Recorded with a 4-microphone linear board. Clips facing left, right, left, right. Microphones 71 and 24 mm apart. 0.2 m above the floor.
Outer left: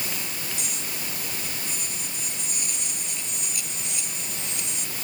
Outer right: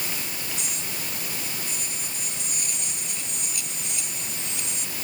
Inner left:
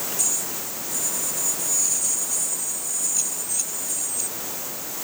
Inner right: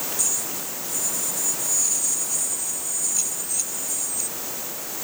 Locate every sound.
Only background noise.